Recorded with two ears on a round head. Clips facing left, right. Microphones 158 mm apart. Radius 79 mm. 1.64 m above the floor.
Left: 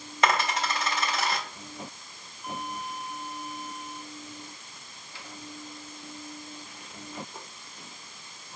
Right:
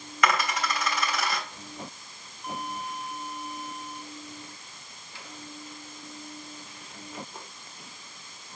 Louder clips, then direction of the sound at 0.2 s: Left 1 dB; 25° left (ahead or behind).